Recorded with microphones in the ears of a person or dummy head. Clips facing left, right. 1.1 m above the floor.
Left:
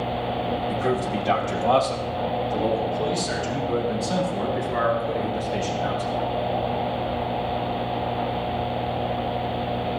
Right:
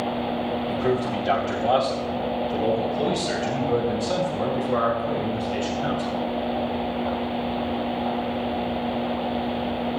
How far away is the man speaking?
About 3.5 m.